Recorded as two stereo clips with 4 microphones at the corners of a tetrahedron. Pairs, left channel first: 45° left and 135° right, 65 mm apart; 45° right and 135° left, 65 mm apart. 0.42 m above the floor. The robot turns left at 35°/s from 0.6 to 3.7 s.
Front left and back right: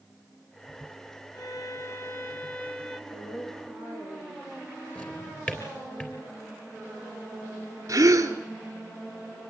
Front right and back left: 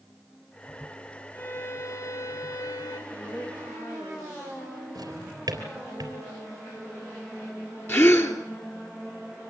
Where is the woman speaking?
35° left, 9.5 m; by 4.5 s 15° left, 9.5 m.